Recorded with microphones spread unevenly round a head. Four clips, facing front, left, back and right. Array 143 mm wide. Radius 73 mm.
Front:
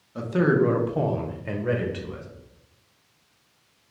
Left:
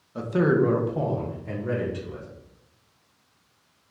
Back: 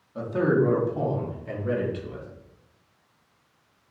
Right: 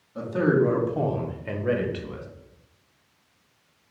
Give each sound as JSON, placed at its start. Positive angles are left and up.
{"t": 0.1, "sound": "a man speaking", "azimuth_deg": 75, "distance_m": 0.9}